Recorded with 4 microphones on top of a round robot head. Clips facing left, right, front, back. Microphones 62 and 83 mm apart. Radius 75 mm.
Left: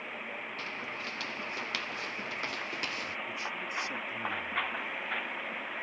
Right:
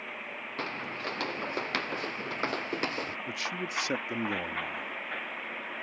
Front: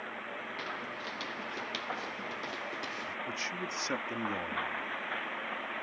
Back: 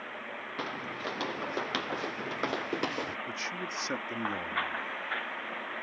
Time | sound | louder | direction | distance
0.6 | footsteps | right 7 dB, back 7 dB | 130° right | ?
3.3 | a man speaking | right 2 dB, back 1 dB | 95° right | ?